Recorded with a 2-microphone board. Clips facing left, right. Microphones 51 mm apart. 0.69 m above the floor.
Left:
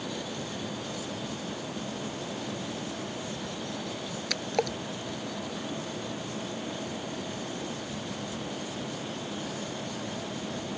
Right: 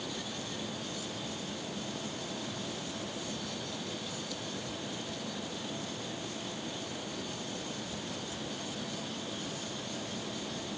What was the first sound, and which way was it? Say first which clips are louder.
A splash: left 10 dB; 75° left (ahead or behind).